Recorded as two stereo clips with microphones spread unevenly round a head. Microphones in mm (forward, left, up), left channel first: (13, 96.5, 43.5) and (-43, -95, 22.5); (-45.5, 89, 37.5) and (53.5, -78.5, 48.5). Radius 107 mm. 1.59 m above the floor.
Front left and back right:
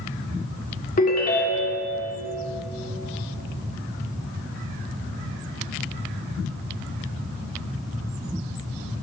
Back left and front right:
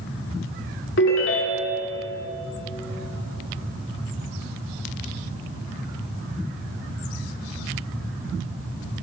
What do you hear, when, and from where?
1.0 s a ringtone: 105° left, 1.6 m